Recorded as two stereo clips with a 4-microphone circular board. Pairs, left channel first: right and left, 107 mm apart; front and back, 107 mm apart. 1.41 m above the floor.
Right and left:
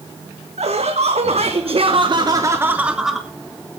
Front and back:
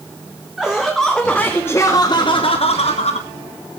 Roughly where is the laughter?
Left.